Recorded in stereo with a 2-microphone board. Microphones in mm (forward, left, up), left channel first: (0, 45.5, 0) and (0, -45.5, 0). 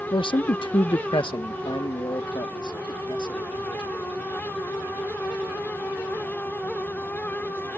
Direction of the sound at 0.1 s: 75° left (ahead or behind).